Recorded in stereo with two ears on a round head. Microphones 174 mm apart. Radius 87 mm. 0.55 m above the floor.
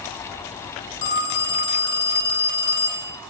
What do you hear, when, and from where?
1.0 s a phone ringing: 60° left (ahead or behind), 0.9 m